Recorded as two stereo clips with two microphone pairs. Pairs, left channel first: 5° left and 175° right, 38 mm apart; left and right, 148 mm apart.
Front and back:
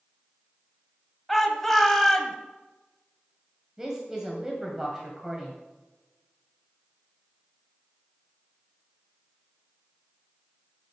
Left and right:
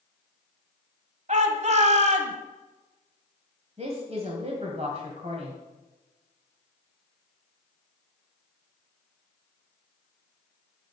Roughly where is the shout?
Right.